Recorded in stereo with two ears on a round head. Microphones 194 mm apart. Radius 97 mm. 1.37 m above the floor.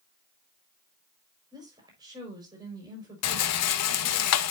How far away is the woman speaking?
About 5 m.